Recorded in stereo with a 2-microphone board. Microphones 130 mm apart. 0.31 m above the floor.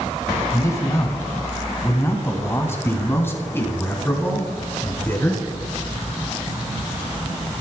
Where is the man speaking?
25° left (ahead or behind), 1.7 m; by 5.4 s 15° left (ahead or behind), 4.5 m.